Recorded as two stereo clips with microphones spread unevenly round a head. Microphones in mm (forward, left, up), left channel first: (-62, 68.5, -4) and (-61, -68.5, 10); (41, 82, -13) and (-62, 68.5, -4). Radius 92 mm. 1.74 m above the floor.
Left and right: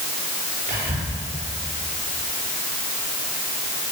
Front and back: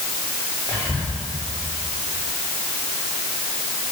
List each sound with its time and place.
0.7 s whispering: 95° right, 6 m